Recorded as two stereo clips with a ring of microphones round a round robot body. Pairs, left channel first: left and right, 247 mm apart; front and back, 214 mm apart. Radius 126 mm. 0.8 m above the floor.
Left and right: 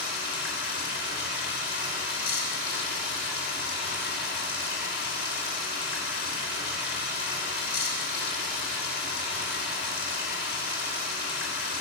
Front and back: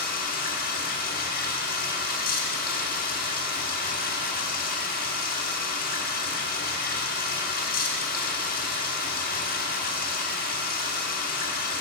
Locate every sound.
0.0 s running water: 45° left, 1.4 m